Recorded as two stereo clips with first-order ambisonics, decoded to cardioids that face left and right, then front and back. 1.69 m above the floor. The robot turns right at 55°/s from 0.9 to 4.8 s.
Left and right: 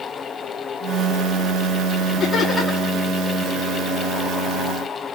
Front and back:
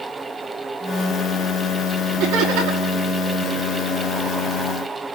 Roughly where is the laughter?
Behind left.